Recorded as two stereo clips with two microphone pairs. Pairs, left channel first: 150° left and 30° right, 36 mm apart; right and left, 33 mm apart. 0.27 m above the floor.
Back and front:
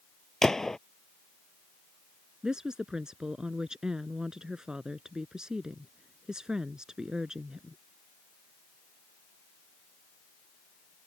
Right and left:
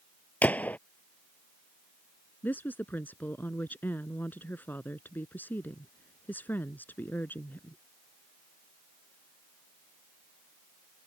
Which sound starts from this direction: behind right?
A gunshot, at 0.4 s.